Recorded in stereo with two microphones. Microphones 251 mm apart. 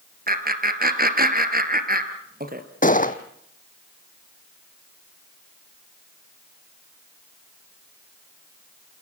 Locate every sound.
0.3 s laughter: 40° right (ahead or behind), 2.5 m
2.8 s a gunshot: 35° left (ahead or behind), 1.1 m